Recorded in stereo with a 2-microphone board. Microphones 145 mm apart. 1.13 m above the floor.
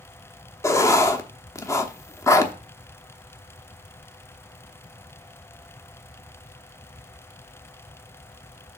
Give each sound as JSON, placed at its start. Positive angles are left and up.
{"t": 0.6, "sound": "writing", "side_deg": 20, "distance_m": 0.8}